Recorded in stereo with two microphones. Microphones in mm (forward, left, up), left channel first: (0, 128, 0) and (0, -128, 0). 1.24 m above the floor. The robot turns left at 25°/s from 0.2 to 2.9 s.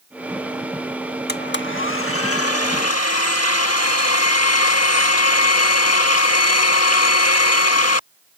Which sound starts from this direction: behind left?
A blender, at 1.3 s.